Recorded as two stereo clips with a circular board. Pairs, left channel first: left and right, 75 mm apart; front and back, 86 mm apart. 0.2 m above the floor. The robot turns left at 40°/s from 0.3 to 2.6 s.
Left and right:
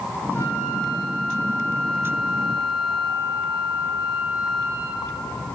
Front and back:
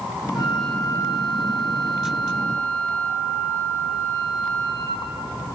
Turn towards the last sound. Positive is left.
turn(degrees=-45)